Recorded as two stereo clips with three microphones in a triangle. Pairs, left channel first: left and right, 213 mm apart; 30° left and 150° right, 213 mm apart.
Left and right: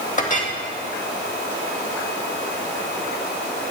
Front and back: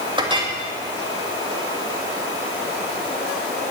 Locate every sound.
0.2 s a clink: 145° left, 2 m